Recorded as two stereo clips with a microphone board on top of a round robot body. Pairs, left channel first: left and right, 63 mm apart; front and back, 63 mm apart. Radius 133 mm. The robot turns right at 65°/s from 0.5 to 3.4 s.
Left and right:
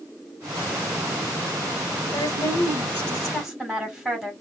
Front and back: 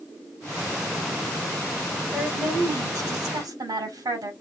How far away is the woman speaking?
About 3.5 m.